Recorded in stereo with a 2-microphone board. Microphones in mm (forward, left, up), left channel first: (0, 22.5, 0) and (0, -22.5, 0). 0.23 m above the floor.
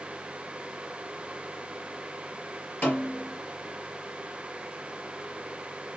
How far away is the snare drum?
About 3.5 m.